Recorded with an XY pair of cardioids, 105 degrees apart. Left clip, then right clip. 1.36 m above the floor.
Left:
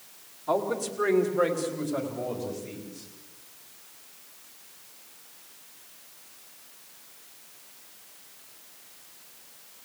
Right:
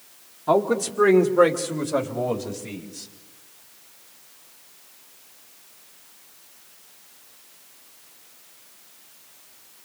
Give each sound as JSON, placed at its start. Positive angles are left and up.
{"t": 0.5, "sound": "a man speaking", "azimuth_deg": -60, "distance_m": 2.5}